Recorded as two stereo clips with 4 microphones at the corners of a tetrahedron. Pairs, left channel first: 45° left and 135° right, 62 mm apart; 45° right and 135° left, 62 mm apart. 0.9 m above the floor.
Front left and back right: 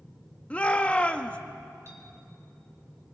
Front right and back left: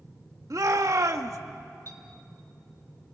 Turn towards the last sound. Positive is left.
turn(degrees=-90)